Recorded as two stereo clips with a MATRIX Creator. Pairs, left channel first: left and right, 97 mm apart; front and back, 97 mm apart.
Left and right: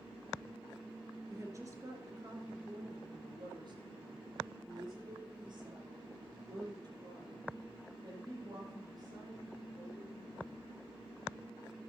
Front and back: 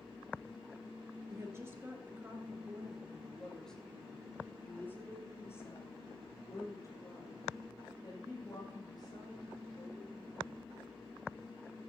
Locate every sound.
1.3 s a woman speaking: 135° right, 2.5 m; by 10.6 s 40° right, 6.5 m